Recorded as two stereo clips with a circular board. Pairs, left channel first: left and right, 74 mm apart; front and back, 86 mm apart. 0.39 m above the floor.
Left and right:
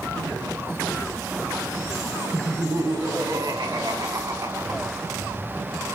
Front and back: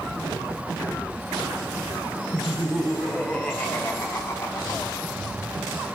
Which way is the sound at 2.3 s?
100° right.